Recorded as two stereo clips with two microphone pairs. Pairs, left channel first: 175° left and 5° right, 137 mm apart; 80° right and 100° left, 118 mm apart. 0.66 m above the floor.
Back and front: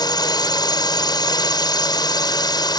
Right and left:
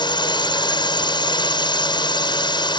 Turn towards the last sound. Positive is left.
turn(degrees=-125)